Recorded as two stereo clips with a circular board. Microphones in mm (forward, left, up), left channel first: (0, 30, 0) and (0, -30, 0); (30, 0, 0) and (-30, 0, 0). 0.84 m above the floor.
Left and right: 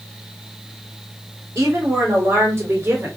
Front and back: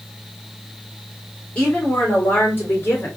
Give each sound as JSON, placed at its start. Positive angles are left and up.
{"t": 1.6, "sound": "a woman speaking", "azimuth_deg": -65, "distance_m": 2.5}